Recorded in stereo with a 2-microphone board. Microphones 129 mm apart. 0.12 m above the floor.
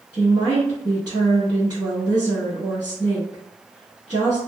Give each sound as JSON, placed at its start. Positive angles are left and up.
{"t": 0.1, "sound": "a woman speaking", "side_deg": -30, "distance_m": 1.6}